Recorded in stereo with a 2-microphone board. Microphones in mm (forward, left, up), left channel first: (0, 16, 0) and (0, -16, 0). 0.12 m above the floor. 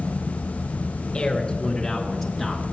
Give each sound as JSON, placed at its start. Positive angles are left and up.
{"t": 1.1, "sound": "a man speaking", "side_deg": 25, "distance_m": 1.6}